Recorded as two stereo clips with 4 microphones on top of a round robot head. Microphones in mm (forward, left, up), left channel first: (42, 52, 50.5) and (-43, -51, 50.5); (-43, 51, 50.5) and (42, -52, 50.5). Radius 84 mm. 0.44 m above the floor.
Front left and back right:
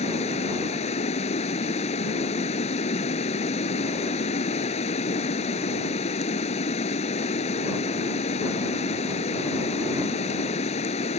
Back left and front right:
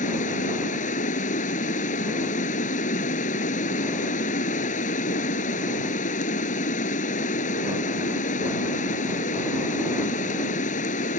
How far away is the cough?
I don't hear a cough.